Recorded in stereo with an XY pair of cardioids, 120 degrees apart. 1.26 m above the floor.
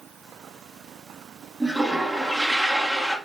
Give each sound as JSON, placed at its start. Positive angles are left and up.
{"t": 1.6, "sound": "a toilet flushing", "azimuth_deg": -5, "distance_m": 1.4}